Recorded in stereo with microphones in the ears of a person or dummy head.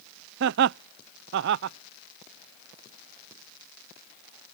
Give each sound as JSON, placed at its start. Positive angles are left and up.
{"t": 0.4, "sound": "laughter", "side_deg": -65}